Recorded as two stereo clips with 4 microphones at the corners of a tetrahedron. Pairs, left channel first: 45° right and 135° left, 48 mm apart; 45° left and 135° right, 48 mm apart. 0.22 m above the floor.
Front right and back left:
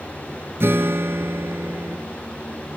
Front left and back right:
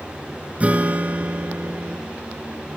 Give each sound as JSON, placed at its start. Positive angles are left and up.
{"t": 0.6, "sound": "a guitar", "azimuth_deg": 165, "distance_m": 1.5}